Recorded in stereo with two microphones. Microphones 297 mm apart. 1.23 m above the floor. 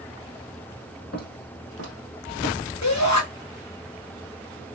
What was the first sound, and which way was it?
Footsteps, 55° left (ahead or behind).